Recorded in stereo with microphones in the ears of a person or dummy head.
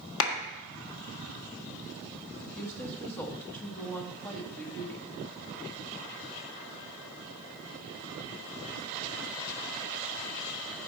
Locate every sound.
0.2 s a clap: 75° left (ahead or behind), 1.5 m
2.5 s a woman speaking: 15° left (ahead or behind), 1.3 m